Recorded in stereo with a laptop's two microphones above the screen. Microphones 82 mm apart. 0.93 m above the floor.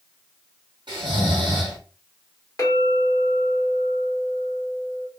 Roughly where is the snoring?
Right.